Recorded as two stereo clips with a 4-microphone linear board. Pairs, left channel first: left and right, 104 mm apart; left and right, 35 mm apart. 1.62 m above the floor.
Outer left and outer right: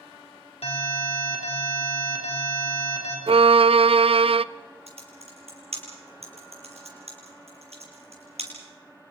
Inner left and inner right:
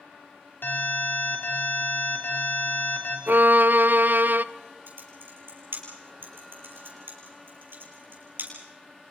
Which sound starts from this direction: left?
An alarm, at 0.6 s.